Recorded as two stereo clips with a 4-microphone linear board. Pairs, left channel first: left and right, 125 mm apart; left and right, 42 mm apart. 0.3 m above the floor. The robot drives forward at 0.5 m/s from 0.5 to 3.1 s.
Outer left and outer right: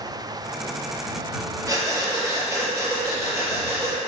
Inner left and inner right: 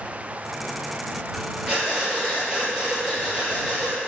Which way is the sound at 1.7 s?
30° right (ahead or behind).